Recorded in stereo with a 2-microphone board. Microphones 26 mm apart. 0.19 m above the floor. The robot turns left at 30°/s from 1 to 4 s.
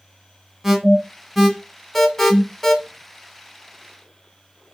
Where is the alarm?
10° right (ahead or behind), 1.0 m; by 2.8 s 20° left (ahead or behind), 1.0 m.